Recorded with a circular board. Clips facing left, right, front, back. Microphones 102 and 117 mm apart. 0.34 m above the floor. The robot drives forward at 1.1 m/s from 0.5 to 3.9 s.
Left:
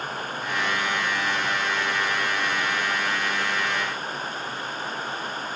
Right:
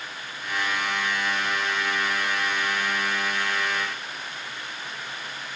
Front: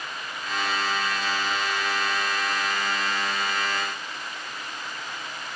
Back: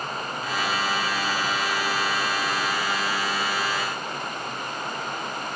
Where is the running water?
135° left; by 5.5 s 140° left.